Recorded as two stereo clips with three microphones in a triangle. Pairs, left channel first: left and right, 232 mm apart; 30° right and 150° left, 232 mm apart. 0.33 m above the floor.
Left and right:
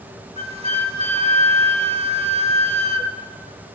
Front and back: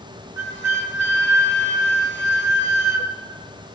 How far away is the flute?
About 0.9 m.